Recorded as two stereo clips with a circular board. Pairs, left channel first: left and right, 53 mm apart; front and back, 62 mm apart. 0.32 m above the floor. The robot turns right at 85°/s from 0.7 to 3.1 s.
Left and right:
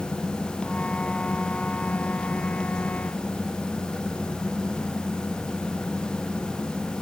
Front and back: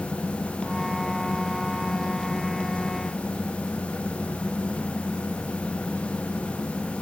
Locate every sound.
Only background noise.